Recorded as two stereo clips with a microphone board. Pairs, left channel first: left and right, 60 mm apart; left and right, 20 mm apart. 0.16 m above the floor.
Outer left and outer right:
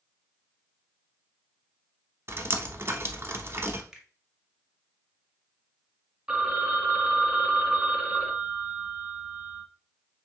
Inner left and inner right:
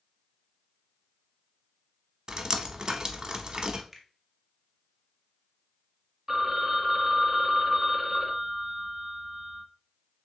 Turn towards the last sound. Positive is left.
turn(degrees=-15)  # may be behind; listen again after turning